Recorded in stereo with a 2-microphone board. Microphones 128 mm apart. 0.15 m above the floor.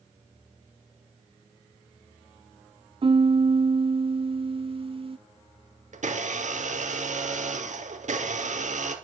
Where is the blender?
70° right (ahead or behind), 2.5 m.